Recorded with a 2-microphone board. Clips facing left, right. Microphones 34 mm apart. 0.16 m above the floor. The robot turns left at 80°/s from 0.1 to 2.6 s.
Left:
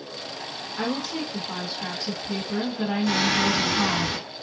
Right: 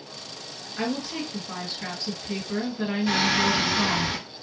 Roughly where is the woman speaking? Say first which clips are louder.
Left 1 dB; ahead.